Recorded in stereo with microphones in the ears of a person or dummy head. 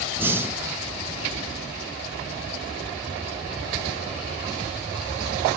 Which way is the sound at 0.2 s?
15° right (ahead or behind).